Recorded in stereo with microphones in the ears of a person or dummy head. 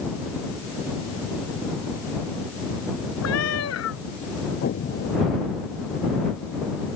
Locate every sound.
3.2 s a cat meowing: 70° left (ahead or behind)
4.6 s an explosion: 45° left (ahead or behind)